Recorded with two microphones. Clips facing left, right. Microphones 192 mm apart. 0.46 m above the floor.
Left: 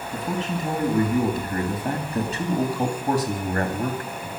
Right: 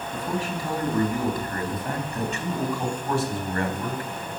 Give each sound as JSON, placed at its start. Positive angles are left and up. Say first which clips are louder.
{"t": 0.1, "sound": "a man speaking", "louder": "left 2 dB", "side_deg": 20, "distance_m": 4.0}